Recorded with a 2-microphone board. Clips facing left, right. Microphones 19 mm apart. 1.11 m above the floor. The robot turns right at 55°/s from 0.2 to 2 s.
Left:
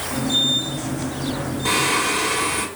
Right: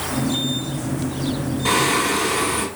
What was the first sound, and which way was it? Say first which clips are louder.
Singing: right 1 dB; 5° right (ahead or behind).